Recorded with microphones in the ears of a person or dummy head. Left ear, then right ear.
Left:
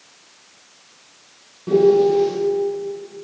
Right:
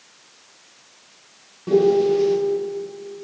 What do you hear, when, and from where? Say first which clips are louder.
1.7 s a piano: left 2 dB; 10° right (ahead or behind), 0.7 m